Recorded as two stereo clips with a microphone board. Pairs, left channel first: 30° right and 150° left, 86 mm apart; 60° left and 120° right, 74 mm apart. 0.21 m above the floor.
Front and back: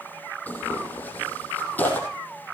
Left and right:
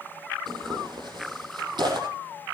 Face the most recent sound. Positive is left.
turn(degrees=-100)